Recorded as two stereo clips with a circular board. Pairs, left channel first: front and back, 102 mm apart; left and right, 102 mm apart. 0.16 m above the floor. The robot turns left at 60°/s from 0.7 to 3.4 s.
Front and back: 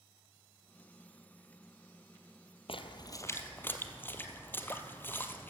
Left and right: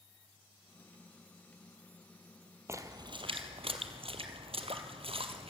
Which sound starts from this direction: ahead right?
A splash, at 2.7 s.